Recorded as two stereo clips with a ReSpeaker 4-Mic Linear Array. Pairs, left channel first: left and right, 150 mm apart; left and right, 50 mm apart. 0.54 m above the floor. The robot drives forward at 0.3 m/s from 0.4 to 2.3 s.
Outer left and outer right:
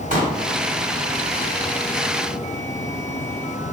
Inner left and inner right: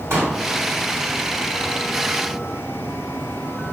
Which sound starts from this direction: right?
A pop, at 0.1 s.